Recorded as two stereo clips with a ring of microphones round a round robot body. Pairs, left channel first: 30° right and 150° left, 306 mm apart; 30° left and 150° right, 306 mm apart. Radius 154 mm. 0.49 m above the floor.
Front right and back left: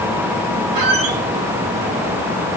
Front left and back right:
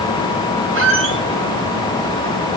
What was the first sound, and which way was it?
A squeak, 160° left.